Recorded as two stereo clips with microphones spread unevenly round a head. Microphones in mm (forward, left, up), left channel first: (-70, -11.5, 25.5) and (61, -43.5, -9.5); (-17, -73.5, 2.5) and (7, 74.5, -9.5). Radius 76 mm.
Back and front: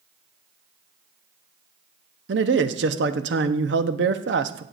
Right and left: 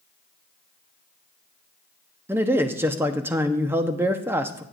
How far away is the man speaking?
About 0.8 m.